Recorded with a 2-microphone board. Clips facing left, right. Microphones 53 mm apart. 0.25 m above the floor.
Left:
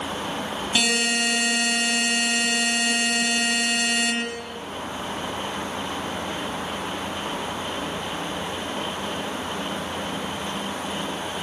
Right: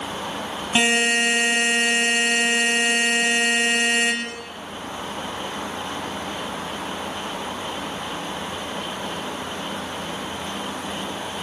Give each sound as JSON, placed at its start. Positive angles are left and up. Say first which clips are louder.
{"t": 0.8, "sound": "a buzzer", "louder": "right 5 dB", "side_deg": -30, "distance_m": 6.5}